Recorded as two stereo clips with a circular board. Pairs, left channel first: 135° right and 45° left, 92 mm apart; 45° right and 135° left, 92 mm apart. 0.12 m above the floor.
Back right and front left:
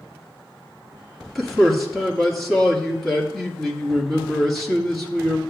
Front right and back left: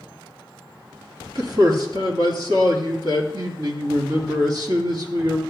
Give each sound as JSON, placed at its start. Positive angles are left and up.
{"t": 1.4, "sound": "a man speaking", "azimuth_deg": 135, "distance_m": 2.5}